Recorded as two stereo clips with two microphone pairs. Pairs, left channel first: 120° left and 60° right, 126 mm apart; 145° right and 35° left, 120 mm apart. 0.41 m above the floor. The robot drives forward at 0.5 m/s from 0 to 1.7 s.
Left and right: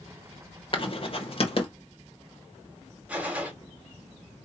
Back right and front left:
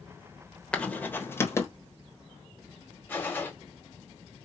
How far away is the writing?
About 1.0 m.